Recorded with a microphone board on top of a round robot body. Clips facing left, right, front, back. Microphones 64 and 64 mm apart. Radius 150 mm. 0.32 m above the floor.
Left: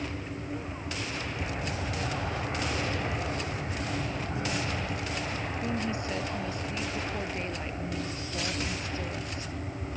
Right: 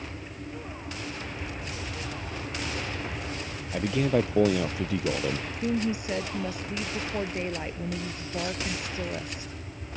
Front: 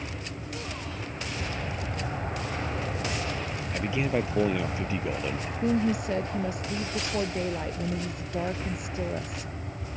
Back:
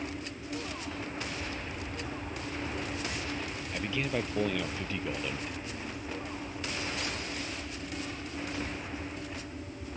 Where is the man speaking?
75° right.